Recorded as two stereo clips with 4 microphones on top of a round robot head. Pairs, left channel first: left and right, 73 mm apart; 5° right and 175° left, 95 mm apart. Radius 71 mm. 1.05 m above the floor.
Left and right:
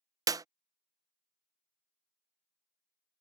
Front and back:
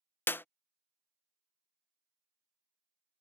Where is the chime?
I don't hear a chime.